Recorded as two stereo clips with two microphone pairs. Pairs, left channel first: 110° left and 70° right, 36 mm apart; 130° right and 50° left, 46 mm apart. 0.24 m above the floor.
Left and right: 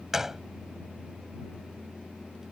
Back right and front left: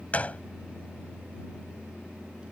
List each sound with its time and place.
0.1 s a gunshot: 135° right